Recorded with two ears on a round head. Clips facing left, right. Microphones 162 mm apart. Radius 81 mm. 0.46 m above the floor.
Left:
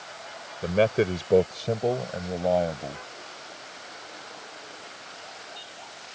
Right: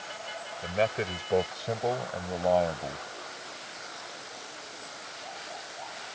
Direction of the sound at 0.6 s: 60° left (ahead or behind).